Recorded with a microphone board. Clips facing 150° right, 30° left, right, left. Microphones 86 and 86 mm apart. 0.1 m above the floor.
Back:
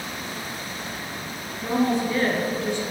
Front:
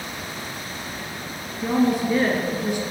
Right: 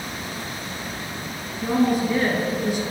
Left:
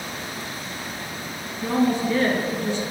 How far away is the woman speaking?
About 1.6 m.